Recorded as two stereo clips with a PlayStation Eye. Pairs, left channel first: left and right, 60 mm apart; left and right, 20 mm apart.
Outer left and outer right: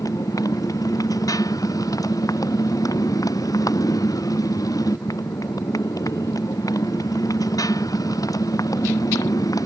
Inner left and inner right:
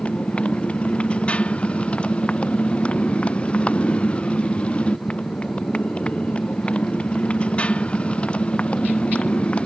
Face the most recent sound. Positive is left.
turn(degrees=80)